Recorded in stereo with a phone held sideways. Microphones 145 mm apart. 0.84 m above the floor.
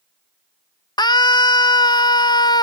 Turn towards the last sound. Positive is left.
turn(degrees=30)  # may be behind; listen again after turning